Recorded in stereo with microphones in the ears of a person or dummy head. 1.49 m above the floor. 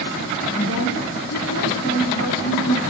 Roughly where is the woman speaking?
Left.